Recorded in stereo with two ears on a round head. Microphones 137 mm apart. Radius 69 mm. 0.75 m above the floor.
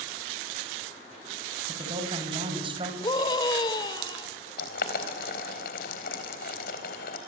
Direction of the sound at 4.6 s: 70° left (ahead or behind).